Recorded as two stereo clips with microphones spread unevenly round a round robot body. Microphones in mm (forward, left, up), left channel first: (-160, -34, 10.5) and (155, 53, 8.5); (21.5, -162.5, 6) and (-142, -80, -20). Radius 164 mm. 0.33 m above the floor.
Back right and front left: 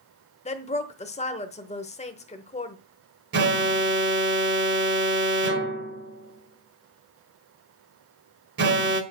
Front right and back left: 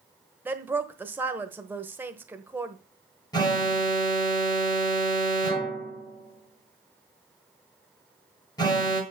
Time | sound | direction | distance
0.5 | a woman speaking | 175° left | 1.0 m
3.3 | an alarm | 50° left | 1.4 m